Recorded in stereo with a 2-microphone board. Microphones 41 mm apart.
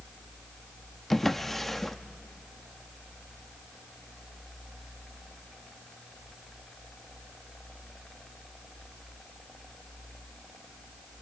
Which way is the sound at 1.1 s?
5° left (ahead or behind).